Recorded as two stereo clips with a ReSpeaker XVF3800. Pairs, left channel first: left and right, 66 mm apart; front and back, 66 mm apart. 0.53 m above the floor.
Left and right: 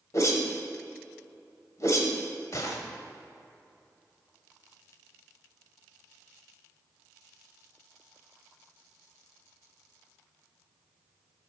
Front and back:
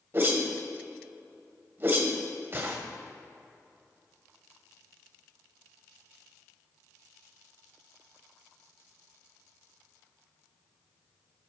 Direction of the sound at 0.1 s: 125° left.